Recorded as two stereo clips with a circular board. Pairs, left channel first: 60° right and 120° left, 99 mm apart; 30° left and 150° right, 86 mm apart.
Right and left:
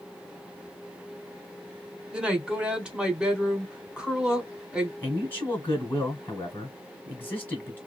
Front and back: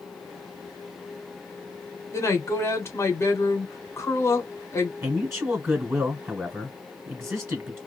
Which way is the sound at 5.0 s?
120° right.